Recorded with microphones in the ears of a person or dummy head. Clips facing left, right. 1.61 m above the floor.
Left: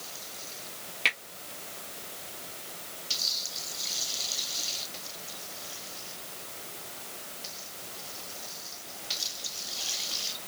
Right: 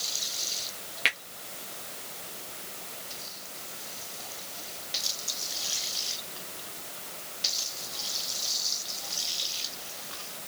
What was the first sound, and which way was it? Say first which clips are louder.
A finger snap: right 1 dB; 15° right (ahead or behind).